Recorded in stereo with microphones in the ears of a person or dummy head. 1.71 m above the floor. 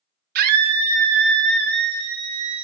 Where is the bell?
No bell in this recording.